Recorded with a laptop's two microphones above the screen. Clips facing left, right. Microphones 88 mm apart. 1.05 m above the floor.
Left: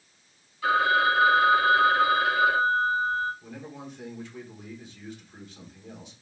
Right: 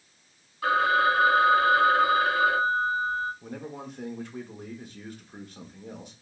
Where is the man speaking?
50° right (ahead or behind), 1.3 m.